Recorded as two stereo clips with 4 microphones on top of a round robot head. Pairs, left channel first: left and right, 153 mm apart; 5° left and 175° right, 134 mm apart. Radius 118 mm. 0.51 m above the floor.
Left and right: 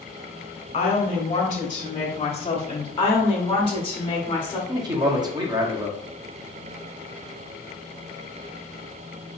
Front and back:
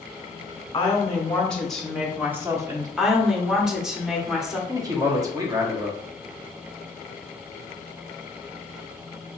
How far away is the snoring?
No snoring in this recording.